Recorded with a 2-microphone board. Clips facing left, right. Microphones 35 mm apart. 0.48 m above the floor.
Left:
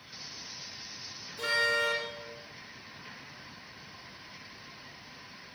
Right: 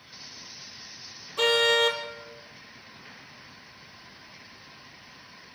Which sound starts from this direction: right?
A car horn, at 1.4 s.